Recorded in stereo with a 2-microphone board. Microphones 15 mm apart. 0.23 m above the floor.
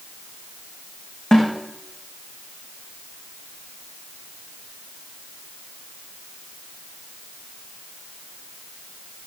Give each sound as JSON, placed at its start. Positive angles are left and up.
{"t": 1.3, "sound": "a snare drum", "side_deg": 60, "distance_m": 5.0}